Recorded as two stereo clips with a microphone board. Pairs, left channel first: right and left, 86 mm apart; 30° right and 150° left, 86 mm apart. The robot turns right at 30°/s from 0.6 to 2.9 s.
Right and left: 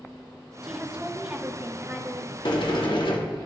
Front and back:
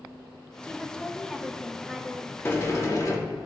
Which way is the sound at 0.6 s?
25° left.